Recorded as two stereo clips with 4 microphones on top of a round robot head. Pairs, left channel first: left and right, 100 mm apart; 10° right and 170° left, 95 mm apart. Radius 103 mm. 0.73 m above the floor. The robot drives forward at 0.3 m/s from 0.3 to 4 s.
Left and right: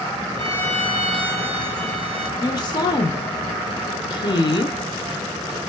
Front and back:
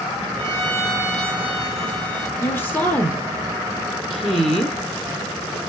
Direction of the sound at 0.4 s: 75° right.